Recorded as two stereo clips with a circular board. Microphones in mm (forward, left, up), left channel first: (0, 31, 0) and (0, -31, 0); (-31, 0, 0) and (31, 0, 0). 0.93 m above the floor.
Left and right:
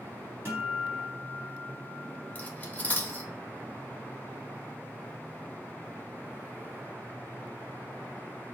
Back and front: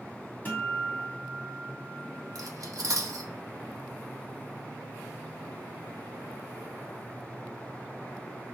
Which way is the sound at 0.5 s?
125° right.